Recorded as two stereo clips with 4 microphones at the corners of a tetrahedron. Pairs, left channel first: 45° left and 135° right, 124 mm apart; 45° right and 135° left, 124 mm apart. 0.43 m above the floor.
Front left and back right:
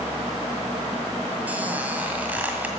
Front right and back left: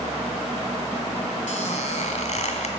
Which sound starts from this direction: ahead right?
A squeak, at 1.5 s.